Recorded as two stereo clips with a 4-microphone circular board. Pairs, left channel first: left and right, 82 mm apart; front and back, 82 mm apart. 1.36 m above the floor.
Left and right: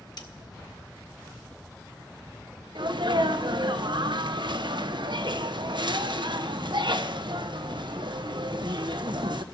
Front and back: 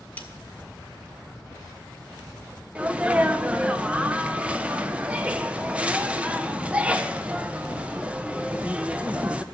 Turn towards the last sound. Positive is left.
turn(degrees=-105)